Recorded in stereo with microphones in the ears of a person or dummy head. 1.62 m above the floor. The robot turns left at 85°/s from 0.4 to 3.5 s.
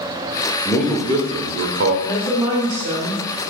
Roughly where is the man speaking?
Ahead.